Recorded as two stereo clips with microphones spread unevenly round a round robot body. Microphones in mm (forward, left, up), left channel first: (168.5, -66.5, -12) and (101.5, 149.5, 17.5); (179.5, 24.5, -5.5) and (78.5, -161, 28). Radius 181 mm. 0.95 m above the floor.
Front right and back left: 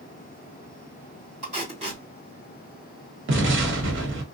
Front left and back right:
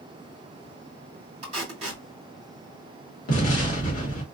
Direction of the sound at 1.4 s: 175° left.